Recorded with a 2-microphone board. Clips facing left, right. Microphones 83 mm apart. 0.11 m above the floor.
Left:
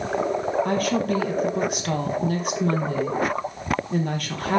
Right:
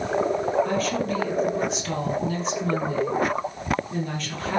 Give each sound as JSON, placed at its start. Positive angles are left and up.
{"t": 0.7, "sound": "a woman speaking", "side_deg": 60, "distance_m": 3.0}